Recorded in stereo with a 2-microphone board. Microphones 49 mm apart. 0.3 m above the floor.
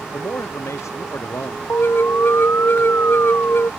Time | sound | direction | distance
0.1 | a man speaking | 85° left | ?
1.7 | an alarm | 50° left (ahead or behind) | ?